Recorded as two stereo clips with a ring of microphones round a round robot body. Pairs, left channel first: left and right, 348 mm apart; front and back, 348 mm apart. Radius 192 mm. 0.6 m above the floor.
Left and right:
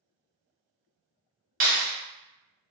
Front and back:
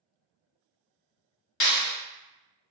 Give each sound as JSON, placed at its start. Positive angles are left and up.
{"t": 1.6, "sound": "a clap", "azimuth_deg": -35, "distance_m": 1.7}